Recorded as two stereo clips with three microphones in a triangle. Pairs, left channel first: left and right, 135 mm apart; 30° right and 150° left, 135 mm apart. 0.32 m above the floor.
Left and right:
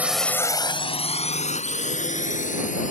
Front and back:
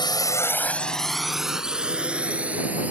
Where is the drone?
20° right; by 2.9 s 70° left.